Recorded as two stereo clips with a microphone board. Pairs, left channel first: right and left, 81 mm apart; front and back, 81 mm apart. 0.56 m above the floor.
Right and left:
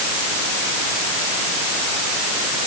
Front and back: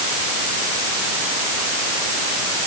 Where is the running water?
I don't hear running water.